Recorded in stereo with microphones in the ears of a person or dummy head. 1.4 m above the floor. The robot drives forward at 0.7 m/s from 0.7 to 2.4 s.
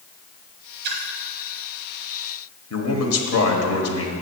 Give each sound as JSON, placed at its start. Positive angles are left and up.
{"t": 0.8, "sound": "a splash", "side_deg": -55, "distance_m": 1.2}
{"t": 2.7, "sound": "a man speaking", "side_deg": 70, "distance_m": 1.3}